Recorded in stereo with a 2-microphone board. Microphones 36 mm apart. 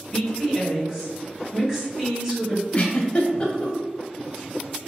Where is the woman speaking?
20° right (ahead or behind), 2.0 m.